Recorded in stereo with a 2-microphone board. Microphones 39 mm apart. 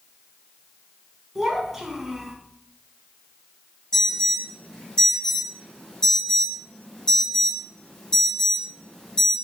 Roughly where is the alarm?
Left.